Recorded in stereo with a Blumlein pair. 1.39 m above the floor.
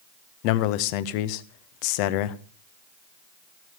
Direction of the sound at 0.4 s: 45° left.